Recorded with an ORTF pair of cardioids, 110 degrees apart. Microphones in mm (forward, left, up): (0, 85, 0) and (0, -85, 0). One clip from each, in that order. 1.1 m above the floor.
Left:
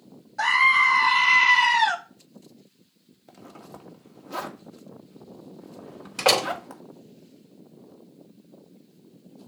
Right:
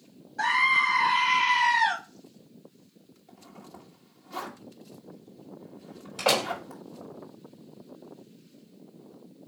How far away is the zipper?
About 1.6 m.